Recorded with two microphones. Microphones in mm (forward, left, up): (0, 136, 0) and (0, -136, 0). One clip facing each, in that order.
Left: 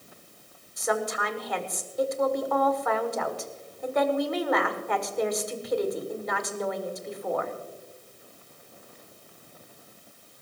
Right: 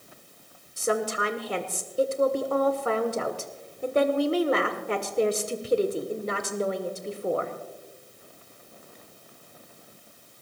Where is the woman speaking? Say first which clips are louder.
Right 2 dB; 30° right (ahead or behind), 1.4 m.